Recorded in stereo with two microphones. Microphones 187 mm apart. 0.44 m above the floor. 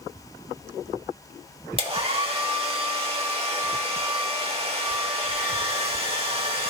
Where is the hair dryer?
30° right (ahead or behind), 1.2 m.